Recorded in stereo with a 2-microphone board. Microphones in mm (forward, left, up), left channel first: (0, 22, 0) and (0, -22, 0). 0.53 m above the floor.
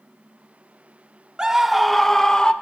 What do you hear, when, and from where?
1.4 s a scream: 15° right (ahead or behind), 0.8 m; by 2.5 s 20° left (ahead or behind), 1.2 m